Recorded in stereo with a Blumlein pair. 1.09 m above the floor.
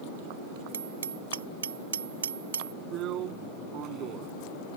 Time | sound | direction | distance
0.7 | hammering | 65° right | ?
2.9 | a drill | 35° right | ?